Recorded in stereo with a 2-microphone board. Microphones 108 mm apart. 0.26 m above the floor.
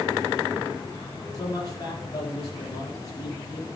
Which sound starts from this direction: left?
A man speaking, at 1.3 s.